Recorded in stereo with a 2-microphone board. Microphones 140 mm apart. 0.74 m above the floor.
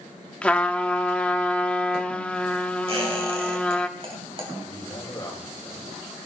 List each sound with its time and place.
0.4 s a trumpet: 10° left (ahead or behind), 0.8 m
2.9 s a squeak: 40° right (ahead or behind), 3.5 m
4.7 s a man speaking: 25° left (ahead or behind), 4.5 m